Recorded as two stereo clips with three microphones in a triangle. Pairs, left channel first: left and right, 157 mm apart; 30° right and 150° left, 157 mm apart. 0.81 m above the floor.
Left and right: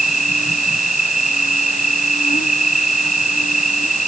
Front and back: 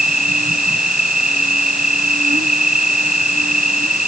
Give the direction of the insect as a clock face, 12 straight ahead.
8 o'clock.